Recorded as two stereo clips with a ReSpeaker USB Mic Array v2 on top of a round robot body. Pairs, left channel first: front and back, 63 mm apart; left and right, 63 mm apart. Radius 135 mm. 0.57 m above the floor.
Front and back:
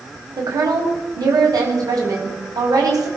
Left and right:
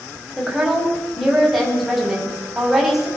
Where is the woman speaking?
175° right, 4.5 m.